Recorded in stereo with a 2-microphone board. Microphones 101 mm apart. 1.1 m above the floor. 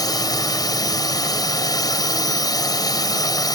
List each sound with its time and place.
0.0 s a drone: 40° left (ahead or behind)